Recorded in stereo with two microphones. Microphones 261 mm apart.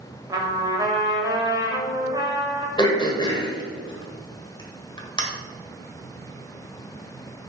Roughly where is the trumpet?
Centre.